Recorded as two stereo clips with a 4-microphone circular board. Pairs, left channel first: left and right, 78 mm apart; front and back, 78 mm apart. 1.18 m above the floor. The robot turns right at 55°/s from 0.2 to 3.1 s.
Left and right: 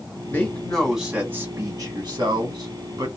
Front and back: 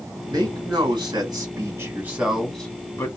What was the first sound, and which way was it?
A man speaking, 150° left.